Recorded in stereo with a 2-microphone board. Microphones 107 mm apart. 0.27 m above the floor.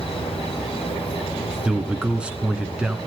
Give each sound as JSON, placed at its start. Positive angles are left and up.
{"t": 0.0, "sound": "an insect", "side_deg": 60, "distance_m": 5.5}
{"t": 1.6, "sound": "a man speaking", "side_deg": -10, "distance_m": 2.5}